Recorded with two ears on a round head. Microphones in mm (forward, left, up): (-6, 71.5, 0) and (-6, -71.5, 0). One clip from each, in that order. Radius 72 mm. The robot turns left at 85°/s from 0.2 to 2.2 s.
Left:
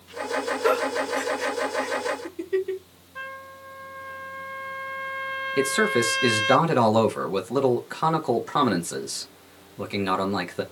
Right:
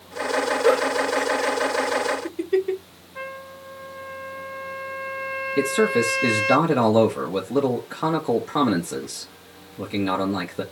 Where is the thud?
No thud in this recording.